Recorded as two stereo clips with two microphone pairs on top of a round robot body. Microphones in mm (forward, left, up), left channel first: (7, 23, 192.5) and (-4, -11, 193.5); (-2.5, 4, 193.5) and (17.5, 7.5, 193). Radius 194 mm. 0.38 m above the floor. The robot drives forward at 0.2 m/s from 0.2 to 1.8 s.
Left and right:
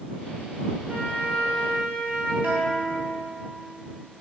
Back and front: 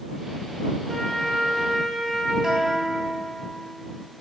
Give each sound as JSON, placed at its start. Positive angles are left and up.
{"t": 0.9, "sound": "a flute", "azimuth_deg": -125, "distance_m": 2.5}
{"t": 2.4, "sound": "a guitar", "azimuth_deg": -60, "distance_m": 0.8}